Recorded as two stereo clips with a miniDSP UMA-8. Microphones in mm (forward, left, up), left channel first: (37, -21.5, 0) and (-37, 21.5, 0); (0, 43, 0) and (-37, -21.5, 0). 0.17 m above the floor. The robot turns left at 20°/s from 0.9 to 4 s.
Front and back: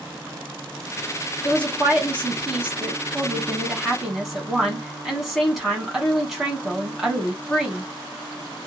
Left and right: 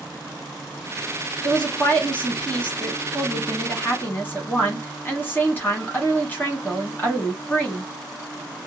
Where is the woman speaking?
120° left, 1.2 m; by 7.8 s 65° left, 1.2 m.